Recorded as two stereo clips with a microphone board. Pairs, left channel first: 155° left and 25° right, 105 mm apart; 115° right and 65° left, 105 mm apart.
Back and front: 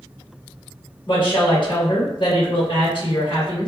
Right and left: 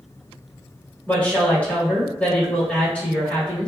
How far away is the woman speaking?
About 1.4 m.